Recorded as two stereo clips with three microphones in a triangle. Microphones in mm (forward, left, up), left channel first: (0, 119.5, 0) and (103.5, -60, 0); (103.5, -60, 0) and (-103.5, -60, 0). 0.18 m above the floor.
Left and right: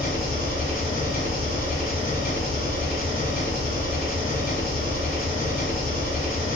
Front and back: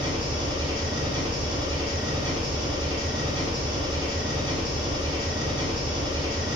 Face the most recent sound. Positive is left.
turn(degrees=125)